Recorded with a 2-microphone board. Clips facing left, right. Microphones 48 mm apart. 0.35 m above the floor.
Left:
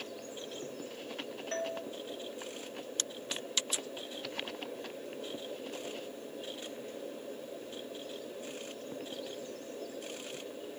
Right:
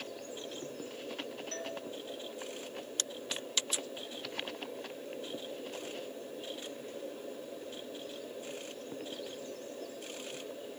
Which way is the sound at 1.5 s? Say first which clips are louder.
Left 7 dB; 30° left (ahead or behind).